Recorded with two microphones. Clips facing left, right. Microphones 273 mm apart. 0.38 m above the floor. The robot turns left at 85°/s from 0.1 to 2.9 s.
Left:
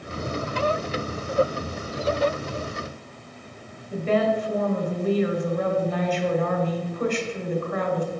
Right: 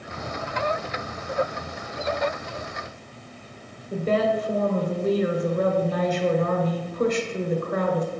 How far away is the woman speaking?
About 1.3 m.